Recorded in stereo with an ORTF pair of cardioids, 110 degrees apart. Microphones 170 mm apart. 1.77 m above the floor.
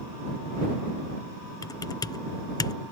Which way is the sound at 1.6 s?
25° left.